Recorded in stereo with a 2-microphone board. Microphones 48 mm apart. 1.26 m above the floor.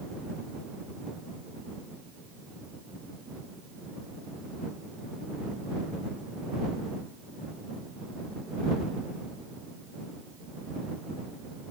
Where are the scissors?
No scissors in this recording.